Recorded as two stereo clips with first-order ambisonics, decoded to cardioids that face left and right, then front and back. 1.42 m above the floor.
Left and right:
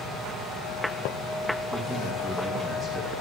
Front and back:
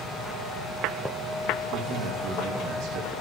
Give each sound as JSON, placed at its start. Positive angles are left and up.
{"t": 1.7, "sound": "a man speaking", "azimuth_deg": -160, "distance_m": 2.5}